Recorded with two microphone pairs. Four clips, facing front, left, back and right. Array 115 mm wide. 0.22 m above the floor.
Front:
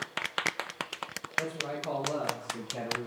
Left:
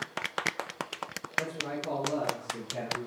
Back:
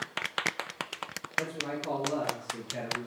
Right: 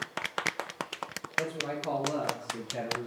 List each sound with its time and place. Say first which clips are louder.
1.4 s a man speaking: right 1 dB, even; 130° right, 3.5 m; by 3.1 s 145° right, 3 m